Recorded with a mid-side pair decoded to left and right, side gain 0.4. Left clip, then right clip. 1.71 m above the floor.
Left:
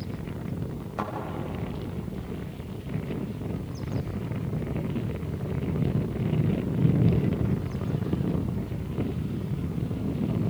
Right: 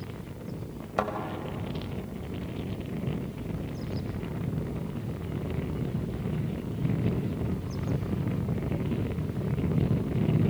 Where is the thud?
60° right, 4.5 m.